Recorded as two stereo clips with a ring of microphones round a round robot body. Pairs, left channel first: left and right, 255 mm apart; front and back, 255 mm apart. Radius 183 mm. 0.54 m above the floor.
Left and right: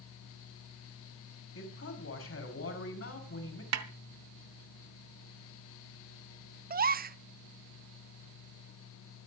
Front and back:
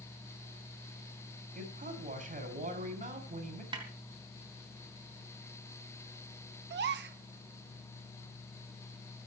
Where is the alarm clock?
No alarm clock in this recording.